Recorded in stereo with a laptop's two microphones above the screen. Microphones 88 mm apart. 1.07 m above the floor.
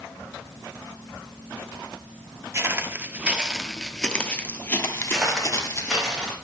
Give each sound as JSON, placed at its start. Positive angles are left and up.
{"t": 2.5, "sound": "footsteps", "side_deg": -35, "distance_m": 1.2}
{"t": 5.1, "sound": "footsteps", "side_deg": -5, "distance_m": 3.5}